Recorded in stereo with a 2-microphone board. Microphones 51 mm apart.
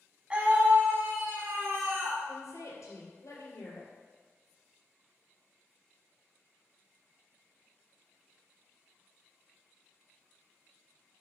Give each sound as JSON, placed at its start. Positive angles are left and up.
{"t": 0.3, "sound": "a scream", "side_deg": -25, "distance_m": 1.3}
{"t": 2.3, "sound": "a woman speaking", "side_deg": 70, "distance_m": 3.0}